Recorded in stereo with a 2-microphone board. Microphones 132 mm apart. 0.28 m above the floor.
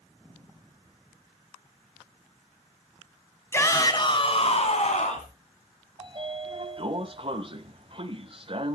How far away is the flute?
No flute in this recording.